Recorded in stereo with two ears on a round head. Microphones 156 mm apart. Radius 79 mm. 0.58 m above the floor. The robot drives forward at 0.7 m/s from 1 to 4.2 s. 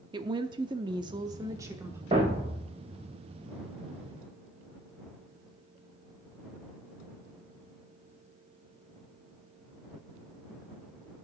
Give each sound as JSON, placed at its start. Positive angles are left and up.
{"t": 0.1, "sound": "a woman speaking", "side_deg": -25, "distance_m": 0.7}
{"t": 2.1, "sound": "a thud", "side_deg": -30, "distance_m": 2.5}